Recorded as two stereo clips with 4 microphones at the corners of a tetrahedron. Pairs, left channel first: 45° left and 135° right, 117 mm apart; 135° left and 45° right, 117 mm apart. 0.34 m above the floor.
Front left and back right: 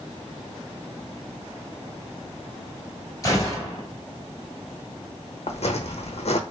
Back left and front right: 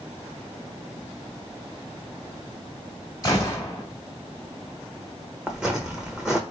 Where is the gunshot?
95° left, 1.6 m.